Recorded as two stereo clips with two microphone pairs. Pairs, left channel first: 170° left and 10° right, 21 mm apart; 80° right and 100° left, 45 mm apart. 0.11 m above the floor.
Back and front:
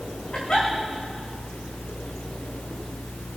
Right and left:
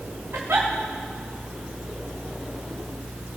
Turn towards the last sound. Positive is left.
turn(degrees=125)